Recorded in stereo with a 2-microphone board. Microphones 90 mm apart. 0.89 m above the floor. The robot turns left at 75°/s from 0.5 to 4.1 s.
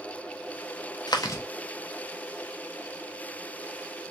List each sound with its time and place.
1.1 s chewing: 55° left (ahead or behind), 0.8 m; by 1.4 s 30° left (ahead or behind), 0.8 m